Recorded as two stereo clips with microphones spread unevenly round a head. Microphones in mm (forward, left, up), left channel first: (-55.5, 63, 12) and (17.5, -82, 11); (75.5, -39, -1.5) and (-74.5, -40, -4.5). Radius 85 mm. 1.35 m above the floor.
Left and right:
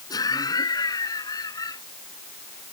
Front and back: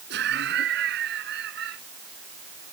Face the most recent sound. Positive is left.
turn(degrees=-175)